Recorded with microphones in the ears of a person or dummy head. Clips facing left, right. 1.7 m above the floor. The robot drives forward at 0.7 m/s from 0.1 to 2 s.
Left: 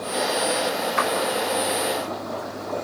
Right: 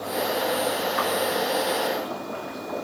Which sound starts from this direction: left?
A clap, at 1.0 s.